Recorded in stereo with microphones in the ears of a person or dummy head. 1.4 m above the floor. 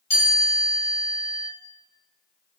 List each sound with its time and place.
0.1 s a chime: 15° left (ahead or behind), 1.6 m